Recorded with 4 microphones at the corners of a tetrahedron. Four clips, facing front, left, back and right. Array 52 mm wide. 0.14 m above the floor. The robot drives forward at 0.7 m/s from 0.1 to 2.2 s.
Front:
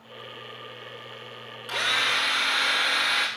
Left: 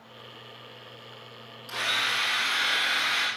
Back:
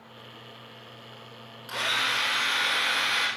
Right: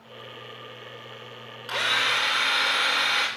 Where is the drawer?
No drawer in this recording.